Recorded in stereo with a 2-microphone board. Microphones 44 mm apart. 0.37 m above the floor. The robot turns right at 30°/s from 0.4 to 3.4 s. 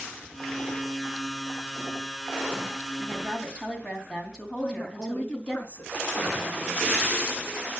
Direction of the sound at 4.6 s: 35° left (ahead or behind).